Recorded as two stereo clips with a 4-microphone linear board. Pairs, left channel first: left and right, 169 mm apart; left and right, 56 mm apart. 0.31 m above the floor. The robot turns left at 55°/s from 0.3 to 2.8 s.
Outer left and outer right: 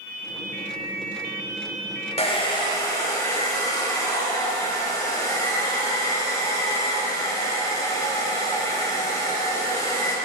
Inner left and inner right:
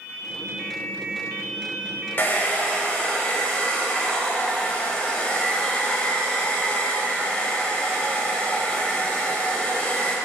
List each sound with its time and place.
2.2 s a hair dryer: 65° left, 1.0 m; by 10.2 s 30° left, 1.0 m